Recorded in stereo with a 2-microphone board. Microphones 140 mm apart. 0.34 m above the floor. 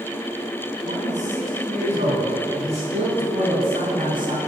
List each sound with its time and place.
0.8 s a man speaking: 65° right (ahead or behind), 3 m; by 4.4 s 35° right (ahead or behind), 2.5 m